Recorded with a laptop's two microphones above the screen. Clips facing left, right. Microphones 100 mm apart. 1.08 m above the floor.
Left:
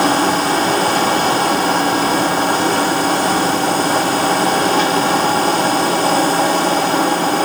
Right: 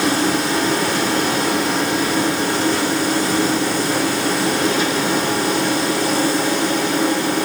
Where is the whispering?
I don't hear whispering.